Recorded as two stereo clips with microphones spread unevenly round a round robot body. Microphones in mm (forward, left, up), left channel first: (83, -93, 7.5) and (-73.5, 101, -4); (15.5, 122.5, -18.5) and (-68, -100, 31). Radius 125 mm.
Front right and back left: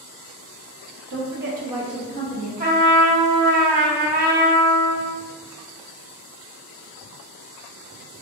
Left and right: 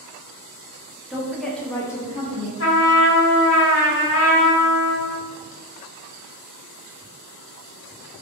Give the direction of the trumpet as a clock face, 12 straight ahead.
9 o'clock.